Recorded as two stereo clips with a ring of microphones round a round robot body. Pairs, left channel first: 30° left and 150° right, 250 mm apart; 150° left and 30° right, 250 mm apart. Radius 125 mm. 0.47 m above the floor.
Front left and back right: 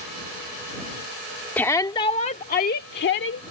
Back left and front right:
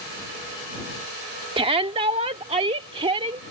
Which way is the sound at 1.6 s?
40° right.